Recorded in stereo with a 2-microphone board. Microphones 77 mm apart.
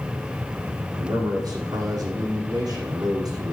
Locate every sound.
0.9 s a man speaking: 60° right (ahead or behind), 5 m